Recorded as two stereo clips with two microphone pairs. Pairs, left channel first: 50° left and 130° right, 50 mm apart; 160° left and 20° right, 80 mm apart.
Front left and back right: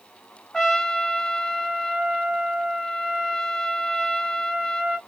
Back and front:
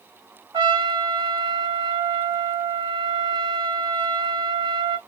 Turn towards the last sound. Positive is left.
turn(degrees=-35)